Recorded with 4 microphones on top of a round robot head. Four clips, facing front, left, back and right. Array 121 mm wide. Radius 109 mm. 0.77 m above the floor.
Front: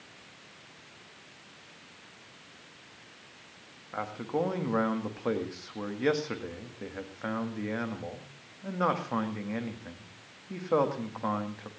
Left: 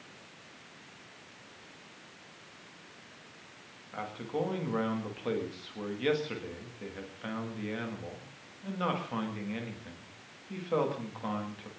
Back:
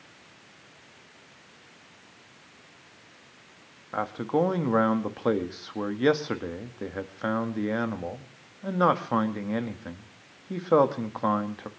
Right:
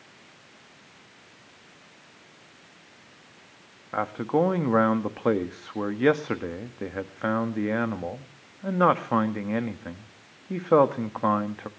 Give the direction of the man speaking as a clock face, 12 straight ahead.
4 o'clock.